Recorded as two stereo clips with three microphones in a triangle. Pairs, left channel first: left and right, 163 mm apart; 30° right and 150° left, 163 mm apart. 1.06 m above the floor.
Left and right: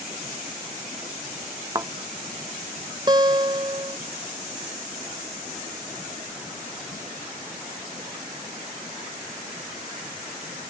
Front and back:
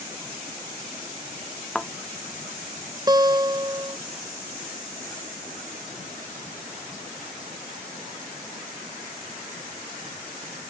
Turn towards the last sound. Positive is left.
turn(degrees=-150)